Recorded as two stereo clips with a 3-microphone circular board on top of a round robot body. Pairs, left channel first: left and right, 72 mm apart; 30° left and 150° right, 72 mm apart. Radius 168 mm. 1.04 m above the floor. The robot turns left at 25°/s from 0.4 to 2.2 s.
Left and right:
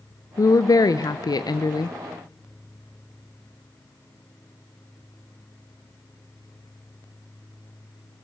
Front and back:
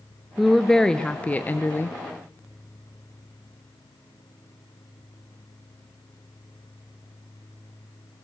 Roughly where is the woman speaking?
Behind left.